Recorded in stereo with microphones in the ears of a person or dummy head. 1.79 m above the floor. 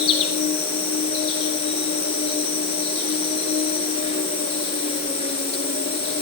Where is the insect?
30° left (ahead or behind), 5 m.